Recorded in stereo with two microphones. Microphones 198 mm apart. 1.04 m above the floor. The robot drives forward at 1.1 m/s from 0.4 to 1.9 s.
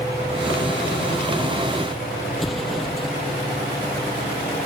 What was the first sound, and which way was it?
An explosion, centre (ahead or behind).